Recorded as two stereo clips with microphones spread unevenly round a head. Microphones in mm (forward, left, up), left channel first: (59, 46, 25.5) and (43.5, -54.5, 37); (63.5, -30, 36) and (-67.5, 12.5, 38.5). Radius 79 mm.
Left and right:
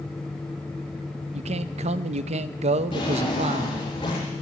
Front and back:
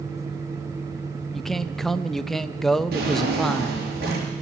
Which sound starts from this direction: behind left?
A drawer, at 2.9 s.